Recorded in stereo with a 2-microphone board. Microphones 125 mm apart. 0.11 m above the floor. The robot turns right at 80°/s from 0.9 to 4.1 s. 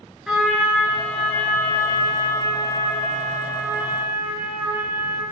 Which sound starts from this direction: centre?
A trumpet, at 0.3 s.